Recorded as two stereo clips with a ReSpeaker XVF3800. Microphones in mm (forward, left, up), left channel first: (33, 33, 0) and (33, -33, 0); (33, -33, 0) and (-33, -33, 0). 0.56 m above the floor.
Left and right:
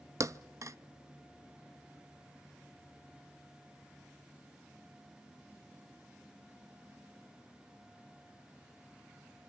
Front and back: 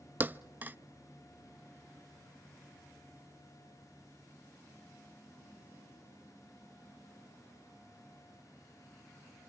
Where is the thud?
120° right, 0.5 m.